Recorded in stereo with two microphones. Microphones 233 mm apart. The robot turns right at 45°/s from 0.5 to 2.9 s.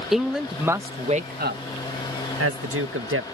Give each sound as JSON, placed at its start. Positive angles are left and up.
{"t": 0.1, "sound": "a man speaking", "side_deg": 0}